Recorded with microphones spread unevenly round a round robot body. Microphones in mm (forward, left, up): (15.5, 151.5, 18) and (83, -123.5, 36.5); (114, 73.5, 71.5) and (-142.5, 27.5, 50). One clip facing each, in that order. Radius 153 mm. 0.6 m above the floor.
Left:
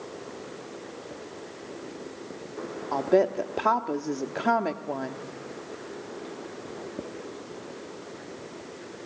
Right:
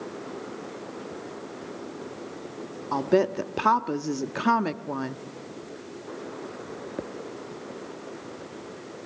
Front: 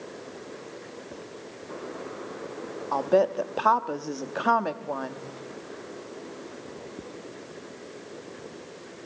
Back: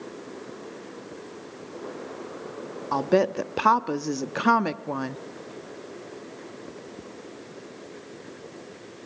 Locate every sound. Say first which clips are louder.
2.9 s a woman speaking: even, back 1 dB; 145° right, 0.9 m